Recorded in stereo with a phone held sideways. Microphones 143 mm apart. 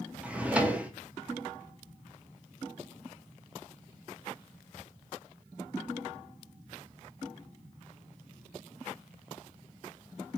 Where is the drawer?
10° right (ahead or behind), 0.6 m.